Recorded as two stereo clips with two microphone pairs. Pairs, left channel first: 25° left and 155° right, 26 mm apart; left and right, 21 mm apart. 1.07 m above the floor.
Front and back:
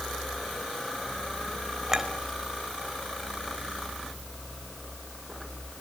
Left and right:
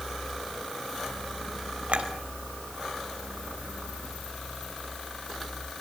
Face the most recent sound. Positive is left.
turn(degrees=-80)